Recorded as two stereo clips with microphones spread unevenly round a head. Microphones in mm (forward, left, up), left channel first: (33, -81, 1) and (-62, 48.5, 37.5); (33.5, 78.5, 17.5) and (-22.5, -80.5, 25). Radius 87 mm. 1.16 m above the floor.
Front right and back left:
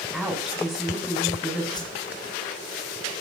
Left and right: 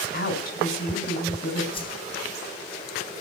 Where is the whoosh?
10° left, 3.5 m.